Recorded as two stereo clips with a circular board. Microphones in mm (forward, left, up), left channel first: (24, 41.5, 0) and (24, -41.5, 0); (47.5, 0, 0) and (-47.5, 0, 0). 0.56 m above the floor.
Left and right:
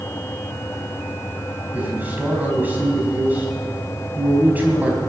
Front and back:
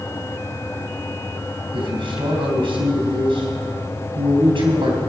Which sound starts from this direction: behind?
A man speaking, at 1.7 s.